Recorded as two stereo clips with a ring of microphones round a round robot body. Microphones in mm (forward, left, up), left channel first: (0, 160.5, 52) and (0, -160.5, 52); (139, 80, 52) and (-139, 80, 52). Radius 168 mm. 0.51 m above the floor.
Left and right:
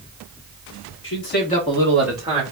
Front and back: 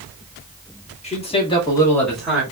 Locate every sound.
1.0 s a man speaking: 60° left, 1.8 m; by 2.4 s 105° right, 1.3 m